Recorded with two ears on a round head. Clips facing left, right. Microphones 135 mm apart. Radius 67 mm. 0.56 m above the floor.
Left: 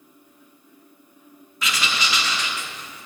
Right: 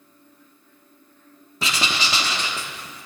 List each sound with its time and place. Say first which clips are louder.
1.6 s writing: right 1 dB; 30° right (ahead or behind), 1.2 m